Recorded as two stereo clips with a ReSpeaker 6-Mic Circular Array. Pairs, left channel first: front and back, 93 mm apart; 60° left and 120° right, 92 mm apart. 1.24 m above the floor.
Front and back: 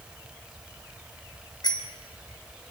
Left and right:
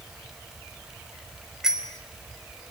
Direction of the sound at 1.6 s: 35° right.